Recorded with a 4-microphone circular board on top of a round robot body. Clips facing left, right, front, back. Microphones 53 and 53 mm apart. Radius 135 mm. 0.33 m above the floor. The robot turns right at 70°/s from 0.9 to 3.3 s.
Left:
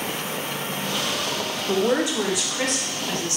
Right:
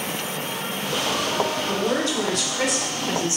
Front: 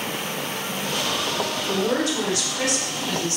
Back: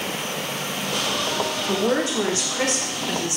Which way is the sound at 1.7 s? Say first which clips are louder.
Left 2 dB, back 1 dB; 120° left.